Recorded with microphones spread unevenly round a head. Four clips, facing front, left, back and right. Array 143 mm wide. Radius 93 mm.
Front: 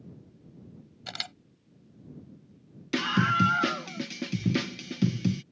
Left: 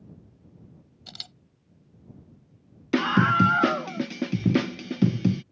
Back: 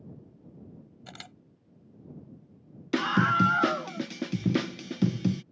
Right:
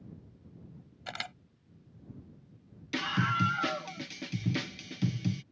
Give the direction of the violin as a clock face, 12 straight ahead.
I don't hear a violin.